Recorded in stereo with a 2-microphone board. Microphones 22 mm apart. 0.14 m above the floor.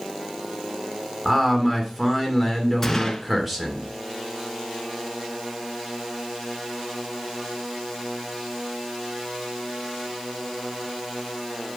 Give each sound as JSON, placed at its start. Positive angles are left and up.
{"t": 1.2, "sound": "a man speaking", "side_deg": -5, "distance_m": 2.0}
{"t": 2.8, "sound": "a gunshot", "side_deg": 15, "distance_m": 1.6}